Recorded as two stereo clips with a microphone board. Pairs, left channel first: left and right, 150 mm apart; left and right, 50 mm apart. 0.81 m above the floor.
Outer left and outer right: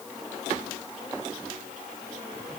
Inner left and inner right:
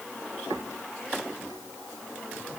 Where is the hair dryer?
I don't hear a hair dryer.